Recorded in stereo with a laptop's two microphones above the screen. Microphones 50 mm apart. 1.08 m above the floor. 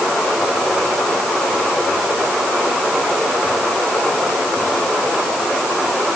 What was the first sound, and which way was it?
Only background noise.